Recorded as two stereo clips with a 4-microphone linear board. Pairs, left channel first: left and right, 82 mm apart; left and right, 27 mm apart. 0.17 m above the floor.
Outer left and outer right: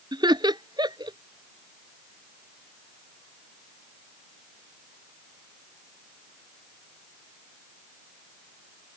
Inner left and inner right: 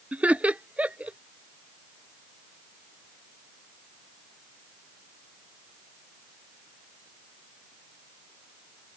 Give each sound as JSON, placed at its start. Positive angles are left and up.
{"t": 0.1, "sound": "laughter", "side_deg": -65}